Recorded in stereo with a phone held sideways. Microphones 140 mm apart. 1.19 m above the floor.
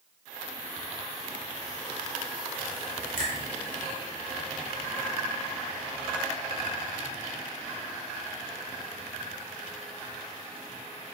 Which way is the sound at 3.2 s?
75° left (ahead or behind).